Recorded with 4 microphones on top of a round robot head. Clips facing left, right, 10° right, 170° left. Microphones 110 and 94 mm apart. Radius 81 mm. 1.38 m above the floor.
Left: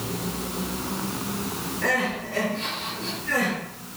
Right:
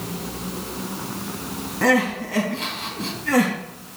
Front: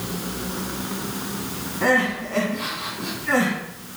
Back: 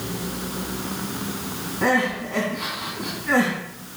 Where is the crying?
105° right, 3 m.